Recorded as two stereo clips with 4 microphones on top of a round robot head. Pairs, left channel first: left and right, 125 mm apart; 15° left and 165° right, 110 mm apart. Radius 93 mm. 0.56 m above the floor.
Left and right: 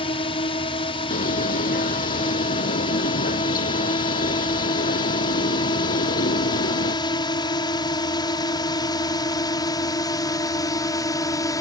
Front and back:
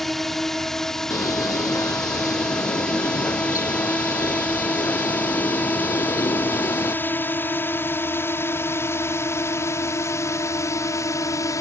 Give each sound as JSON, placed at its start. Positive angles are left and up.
{"t": 0.0, "sound": "a drone", "azimuth_deg": 100}
{"t": 1.1, "sound": "a bird", "azimuth_deg": 75}